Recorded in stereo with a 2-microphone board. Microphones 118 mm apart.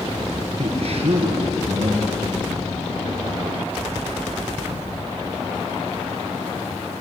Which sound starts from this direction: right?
A man speaking, at 0.6 s.